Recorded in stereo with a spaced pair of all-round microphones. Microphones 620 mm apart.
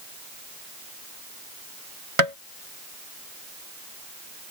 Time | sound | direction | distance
2.2 | tapping | 60° right (ahead or behind) | ?